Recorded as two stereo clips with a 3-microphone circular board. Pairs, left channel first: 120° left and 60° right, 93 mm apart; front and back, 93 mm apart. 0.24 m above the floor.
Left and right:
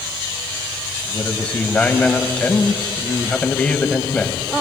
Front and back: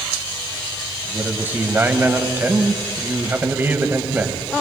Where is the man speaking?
175° left, 1.0 m.